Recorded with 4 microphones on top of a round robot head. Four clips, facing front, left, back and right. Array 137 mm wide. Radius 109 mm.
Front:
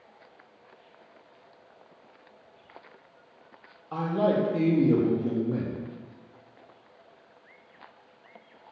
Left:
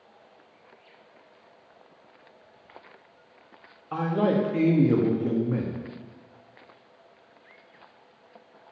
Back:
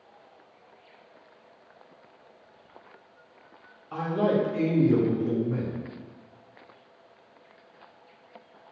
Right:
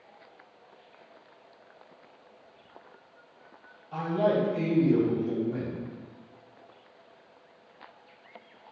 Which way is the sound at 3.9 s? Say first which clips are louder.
Left 2 dB, even; 60° left.